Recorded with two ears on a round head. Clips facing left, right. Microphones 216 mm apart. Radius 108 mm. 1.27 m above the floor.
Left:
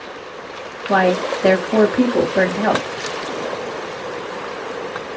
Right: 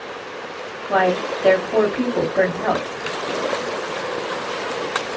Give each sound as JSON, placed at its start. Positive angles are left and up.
{"t": 0.9, "sound": "a woman speaking", "side_deg": 60, "distance_m": 1.8}